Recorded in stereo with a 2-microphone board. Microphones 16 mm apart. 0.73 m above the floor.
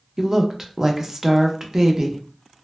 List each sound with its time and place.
0.2 s a woman speaking: 20° right (ahead or behind), 0.6 m